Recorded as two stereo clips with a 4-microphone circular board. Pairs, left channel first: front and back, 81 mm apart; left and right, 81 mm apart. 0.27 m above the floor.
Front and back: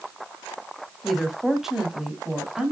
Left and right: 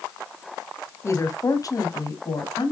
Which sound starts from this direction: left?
A woman speaking, at 1.0 s.